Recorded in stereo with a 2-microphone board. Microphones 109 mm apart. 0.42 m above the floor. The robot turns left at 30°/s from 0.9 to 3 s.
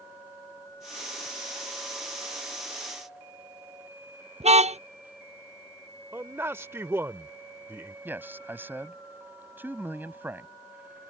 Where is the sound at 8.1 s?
20° right (ahead or behind).